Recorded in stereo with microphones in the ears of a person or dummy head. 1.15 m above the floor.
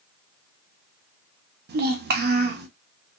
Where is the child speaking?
50° right (ahead or behind), 0.9 m.